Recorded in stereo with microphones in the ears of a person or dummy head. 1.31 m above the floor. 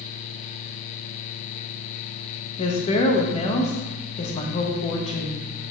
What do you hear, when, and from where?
2.6 s a woman speaking: 40° left (ahead or behind), 0.8 m